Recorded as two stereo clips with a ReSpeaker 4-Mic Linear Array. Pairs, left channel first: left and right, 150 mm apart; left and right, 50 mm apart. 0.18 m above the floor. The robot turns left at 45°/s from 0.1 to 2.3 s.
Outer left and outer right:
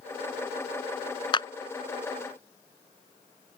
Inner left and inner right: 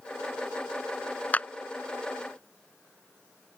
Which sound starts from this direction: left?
A clap, at 1.3 s.